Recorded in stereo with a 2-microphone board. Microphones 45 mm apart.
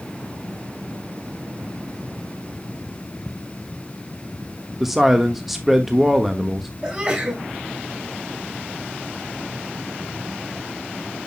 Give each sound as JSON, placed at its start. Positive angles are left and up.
{"t": 4.8, "sound": "a man speaking", "side_deg": -5, "distance_m": 1.2}
{"t": 6.8, "sound": "a sneeze", "side_deg": -20, "distance_m": 5.5}